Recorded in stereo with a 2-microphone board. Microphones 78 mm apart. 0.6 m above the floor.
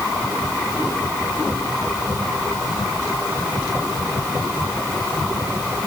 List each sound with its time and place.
Only background noise.